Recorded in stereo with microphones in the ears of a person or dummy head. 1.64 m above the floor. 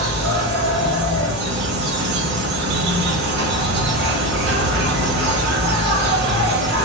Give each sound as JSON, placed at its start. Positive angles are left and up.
{"t": 0.0, "sound": "an insect", "side_deg": -60, "distance_m": 1.3}